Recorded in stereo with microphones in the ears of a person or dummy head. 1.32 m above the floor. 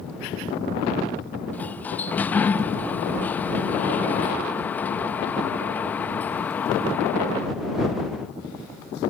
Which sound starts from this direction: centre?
A sliding door, at 1.5 s.